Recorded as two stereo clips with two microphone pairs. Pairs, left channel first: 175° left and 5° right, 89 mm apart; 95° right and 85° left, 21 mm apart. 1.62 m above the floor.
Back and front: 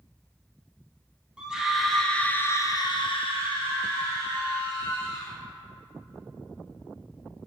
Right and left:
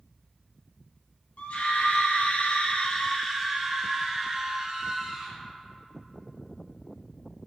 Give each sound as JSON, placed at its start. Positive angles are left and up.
{"t": 1.4, "sound": "a scream", "azimuth_deg": -85, "distance_m": 1.3}